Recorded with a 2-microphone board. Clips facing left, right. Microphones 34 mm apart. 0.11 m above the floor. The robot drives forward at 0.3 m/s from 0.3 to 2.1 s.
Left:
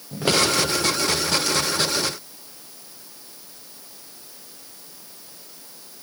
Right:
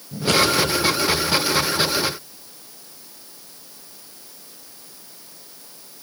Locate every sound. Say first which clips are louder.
0.1 s scissors: right 1 dB; 80° left, 10 m